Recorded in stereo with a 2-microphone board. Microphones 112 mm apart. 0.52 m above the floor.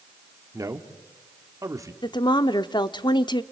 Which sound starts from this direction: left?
A woman speaking, at 2.0 s.